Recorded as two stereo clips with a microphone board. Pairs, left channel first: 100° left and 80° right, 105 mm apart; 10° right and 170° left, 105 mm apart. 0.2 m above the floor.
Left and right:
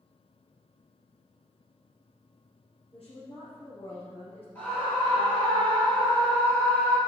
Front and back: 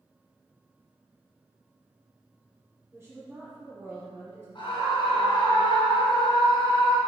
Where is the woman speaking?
105° left, 3 m.